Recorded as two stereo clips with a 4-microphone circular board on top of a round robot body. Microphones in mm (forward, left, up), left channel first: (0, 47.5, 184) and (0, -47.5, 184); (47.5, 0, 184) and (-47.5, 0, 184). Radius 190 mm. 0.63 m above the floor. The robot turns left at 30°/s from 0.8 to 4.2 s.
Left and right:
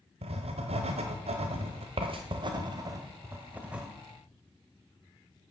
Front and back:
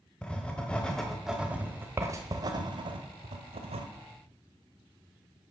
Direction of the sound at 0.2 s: 80° right.